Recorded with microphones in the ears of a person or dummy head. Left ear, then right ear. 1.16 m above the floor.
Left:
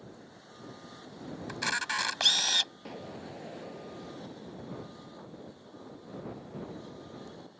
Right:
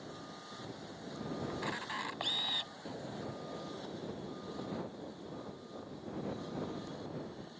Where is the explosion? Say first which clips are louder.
Left 1 dB; 75° left (ahead or behind).